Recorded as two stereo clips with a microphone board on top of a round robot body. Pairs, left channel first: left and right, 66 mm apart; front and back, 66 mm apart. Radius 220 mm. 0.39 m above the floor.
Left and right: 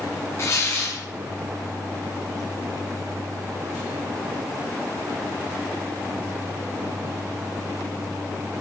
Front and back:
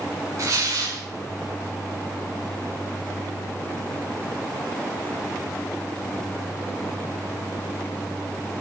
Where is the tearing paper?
140° left, 6.5 m.